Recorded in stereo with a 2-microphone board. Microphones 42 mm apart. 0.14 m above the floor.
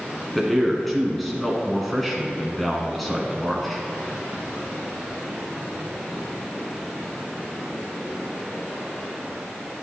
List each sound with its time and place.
0.3 s a man speaking: 5° left (ahead or behind), 1.5 m